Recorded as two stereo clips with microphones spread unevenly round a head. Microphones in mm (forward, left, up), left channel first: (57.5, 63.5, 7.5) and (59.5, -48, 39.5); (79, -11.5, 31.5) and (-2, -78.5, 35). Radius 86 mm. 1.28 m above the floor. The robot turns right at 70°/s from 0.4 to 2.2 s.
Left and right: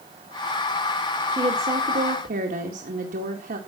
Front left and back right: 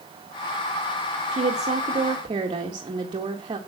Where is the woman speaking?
160° right, 2 m; by 3.6 s 95° right, 2 m.